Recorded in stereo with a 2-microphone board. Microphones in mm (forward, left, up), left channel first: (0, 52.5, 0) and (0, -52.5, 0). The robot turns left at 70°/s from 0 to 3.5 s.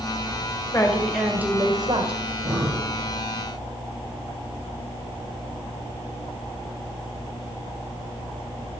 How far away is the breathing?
About 6 m.